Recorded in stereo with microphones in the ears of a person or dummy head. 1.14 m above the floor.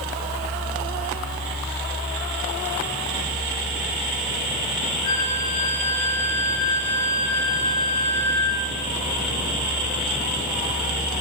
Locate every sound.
5.0 s a flute: 90° left, 8 m